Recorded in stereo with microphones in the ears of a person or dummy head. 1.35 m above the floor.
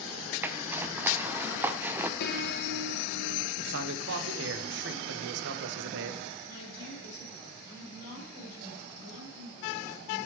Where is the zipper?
10° right (ahead or behind), 0.6 m.